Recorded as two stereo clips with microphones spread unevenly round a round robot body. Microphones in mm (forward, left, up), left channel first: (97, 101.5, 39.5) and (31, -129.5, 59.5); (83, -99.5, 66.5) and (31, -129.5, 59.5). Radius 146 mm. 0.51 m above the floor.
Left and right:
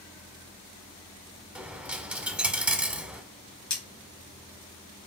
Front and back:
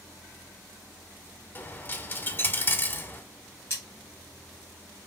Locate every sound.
1.6 s a dropped coin: 25° right, 0.7 m
3.7 s cutlery clinking: 145° left, 1.2 m